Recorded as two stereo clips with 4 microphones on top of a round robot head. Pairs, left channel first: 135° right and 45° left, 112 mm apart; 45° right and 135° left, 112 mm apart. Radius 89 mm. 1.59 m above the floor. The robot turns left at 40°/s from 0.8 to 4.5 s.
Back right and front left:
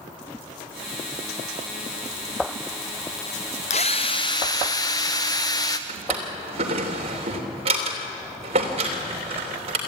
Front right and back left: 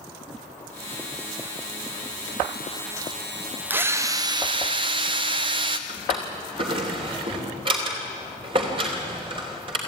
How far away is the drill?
About 0.7 m.